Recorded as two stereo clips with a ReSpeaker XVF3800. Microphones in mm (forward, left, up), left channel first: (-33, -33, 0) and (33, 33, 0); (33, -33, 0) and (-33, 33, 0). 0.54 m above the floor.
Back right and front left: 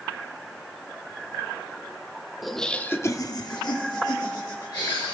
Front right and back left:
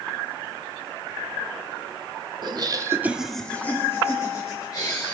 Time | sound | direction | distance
2.4 | laughter | 135° left | 1.1 m